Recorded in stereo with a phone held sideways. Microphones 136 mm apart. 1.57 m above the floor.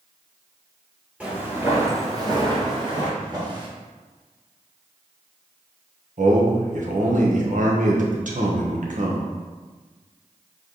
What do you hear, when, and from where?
1.2 s footsteps: 10° right (ahead or behind), 2.0 m; by 3.1 s 35° right (ahead or behind), 2.5 m
3.2 s a drawer: 30° right (ahead or behind), 1.7 m
6.2 s a man speaking: 75° right (ahead or behind), 1.1 m